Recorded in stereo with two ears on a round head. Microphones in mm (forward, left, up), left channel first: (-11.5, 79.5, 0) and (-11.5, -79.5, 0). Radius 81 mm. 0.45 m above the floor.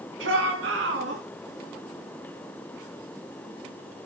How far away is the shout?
About 4 m.